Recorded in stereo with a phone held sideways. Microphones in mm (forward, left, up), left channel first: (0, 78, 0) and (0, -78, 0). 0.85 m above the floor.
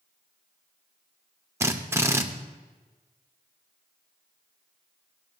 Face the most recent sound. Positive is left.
turn(degrees=-15)  # may be behind; listen again after turning